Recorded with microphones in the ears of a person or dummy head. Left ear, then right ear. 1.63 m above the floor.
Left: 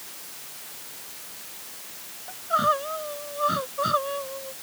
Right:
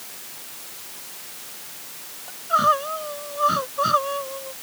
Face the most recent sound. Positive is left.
turn(degrees=-20)  # may be behind; listen again after turning